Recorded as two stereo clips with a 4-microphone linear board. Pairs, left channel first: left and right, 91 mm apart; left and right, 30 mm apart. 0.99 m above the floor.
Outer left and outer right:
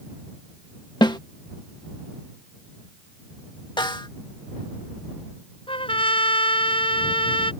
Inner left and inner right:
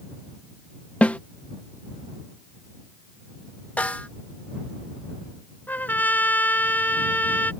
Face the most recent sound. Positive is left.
turn(degrees=80)